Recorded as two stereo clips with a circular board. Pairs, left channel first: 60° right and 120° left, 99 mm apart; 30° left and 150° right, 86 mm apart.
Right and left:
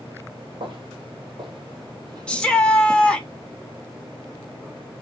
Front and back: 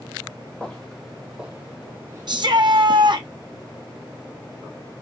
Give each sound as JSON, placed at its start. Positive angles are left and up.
{"t": 0.6, "sound": "footsteps", "azimuth_deg": 105, "distance_m": 1.4}
{"t": 2.3, "sound": "a shout", "azimuth_deg": -135, "distance_m": 0.8}